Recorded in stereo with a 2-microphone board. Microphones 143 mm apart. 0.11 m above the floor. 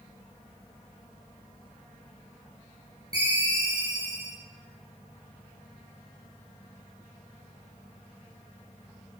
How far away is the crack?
No crack in this recording.